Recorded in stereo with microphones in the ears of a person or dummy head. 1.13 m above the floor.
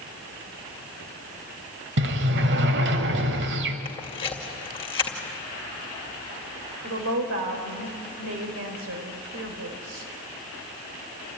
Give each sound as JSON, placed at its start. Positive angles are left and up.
{"t": 2.0, "sound": "a sliding door", "side_deg": -60, "distance_m": 1.5}
{"t": 3.9, "sound": "a camera shutter", "side_deg": 20, "distance_m": 2.0}
{"t": 6.8, "sound": "a woman speaking", "side_deg": -70, "distance_m": 4.0}